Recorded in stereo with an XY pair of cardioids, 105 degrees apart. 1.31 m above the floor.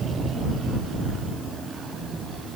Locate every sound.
Only background noise.